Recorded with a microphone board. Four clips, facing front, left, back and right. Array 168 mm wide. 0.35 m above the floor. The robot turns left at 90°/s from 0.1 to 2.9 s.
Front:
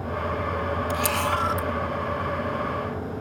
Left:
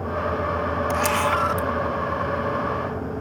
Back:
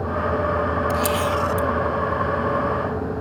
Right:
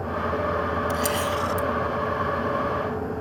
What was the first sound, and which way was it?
A camera shutter, 105° left.